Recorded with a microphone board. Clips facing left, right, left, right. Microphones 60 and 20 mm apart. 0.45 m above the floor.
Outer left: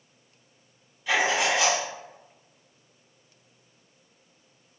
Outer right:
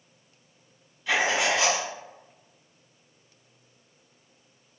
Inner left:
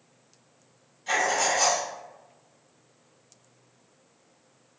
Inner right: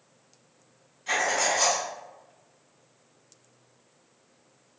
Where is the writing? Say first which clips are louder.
Even, inner left 1 dB; 5° left (ahead or behind), 1.9 m.